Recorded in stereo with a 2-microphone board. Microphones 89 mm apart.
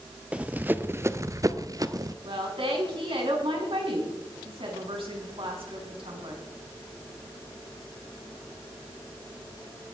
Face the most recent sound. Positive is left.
turn(degrees=-80)